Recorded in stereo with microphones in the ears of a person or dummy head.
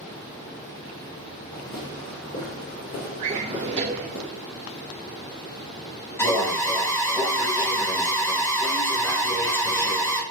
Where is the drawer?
30° right (ahead or behind), 0.5 m.